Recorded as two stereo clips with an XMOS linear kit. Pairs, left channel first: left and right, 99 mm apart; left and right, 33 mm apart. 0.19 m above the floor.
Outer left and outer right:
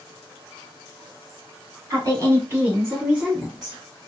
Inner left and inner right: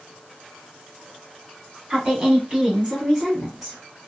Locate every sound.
1.9 s a woman speaking: 35° right (ahead or behind), 1.3 m; by 3.8 s 5° right (ahead or behind), 1.4 m